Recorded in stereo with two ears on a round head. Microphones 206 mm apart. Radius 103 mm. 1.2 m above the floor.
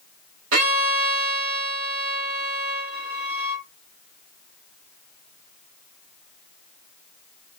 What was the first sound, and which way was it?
A violin, 60° right (ahead or behind).